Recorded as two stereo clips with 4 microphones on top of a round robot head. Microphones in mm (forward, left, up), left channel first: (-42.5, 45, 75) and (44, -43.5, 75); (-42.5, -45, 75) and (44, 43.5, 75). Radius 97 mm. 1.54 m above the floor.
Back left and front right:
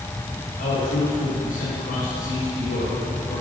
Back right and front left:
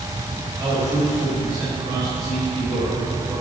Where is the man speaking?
120° left, 4.5 m.